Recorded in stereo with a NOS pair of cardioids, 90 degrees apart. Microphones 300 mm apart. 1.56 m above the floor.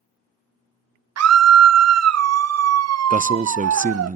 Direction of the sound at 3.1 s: 25° right.